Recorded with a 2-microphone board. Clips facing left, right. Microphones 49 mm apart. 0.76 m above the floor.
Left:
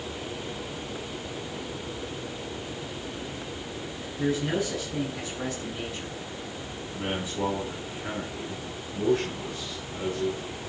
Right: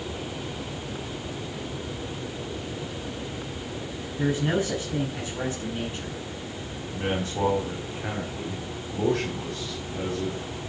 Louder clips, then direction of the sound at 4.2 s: Right 2 dB; 35° right (ahead or behind).